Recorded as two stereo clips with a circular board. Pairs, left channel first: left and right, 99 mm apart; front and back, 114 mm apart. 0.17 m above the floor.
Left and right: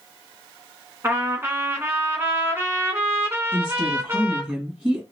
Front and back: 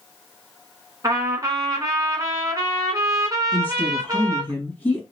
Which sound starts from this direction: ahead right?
A woman speaking, at 3.5 s.